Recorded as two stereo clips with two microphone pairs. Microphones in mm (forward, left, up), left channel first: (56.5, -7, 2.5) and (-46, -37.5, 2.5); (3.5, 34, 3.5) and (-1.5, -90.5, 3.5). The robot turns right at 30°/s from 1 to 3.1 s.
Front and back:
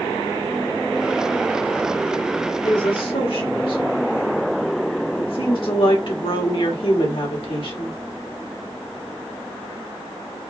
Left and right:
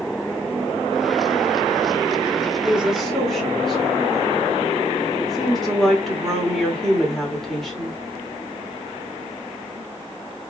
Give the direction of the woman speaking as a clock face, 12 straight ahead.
1 o'clock.